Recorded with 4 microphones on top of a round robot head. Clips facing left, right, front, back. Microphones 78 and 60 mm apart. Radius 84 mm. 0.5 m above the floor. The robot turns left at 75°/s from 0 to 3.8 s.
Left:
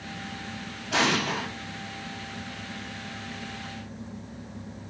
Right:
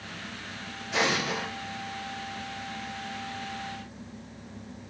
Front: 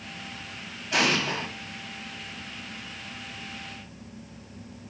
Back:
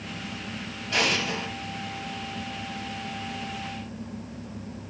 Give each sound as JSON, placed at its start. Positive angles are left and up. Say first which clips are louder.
{"t": 0.9, "sound": "an explosion", "louder": "left 2 dB, front 1 dB", "azimuth_deg": 75, "distance_m": 1.7}